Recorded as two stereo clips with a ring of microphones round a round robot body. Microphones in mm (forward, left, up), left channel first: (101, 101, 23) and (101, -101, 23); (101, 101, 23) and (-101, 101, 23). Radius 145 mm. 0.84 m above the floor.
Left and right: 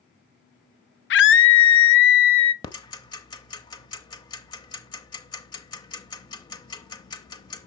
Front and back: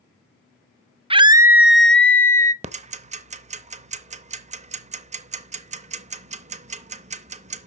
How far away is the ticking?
About 0.7 m.